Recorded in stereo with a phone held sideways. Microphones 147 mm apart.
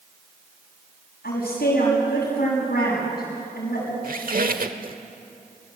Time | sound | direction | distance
1.2 | a woman speaking | 85° left | 6.5 m
4.0 | a squeak | 65° right (ahead or behind) | 1.1 m